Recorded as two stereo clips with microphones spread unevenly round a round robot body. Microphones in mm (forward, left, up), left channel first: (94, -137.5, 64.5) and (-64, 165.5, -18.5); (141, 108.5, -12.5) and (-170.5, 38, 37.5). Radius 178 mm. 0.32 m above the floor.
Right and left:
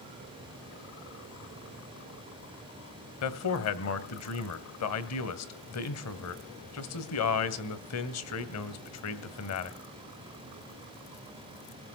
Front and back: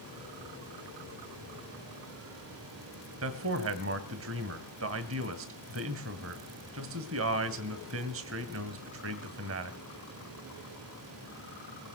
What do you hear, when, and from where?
3.2 s a man speaking: 115° right, 2 m